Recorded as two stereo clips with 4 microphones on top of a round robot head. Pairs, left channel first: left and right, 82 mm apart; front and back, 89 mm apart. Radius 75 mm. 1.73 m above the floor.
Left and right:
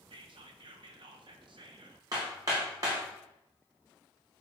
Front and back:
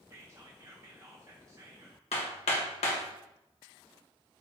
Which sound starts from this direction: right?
Whispering, at 0.1 s.